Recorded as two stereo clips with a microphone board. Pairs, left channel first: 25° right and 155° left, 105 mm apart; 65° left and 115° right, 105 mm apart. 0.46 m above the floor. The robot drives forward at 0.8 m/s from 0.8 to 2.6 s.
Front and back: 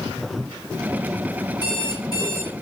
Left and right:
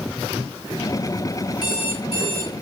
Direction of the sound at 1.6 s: 115° left.